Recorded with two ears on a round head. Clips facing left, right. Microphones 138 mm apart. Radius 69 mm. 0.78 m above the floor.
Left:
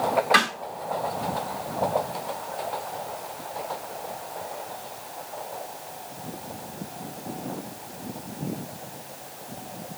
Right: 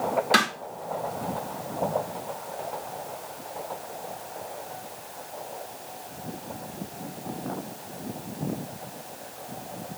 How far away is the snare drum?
About 2 m.